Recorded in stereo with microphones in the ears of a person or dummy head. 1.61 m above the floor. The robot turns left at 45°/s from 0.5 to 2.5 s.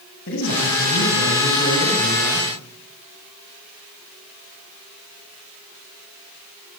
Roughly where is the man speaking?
Left.